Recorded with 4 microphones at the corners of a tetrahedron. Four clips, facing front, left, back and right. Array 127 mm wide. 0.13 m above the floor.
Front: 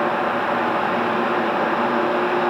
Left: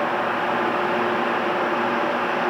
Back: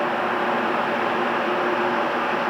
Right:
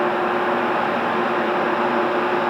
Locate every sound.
Only background noise.